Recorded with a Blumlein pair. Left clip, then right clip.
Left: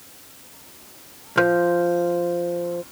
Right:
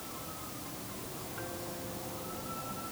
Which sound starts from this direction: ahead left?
A guitar, at 1.4 s.